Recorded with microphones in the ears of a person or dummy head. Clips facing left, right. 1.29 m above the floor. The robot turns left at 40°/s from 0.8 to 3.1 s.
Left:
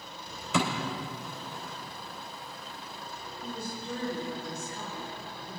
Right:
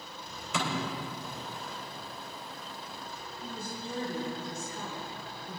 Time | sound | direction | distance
0.5 | a thud | 80° left | 3.5 m
3.4 | a woman speaking | 50° right (ahead or behind) | 3.5 m